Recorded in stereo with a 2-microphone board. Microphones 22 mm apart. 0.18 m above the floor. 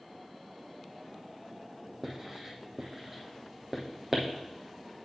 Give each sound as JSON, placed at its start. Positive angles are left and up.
{"t": 2.0, "sound": "writing", "side_deg": -25, "distance_m": 1.3}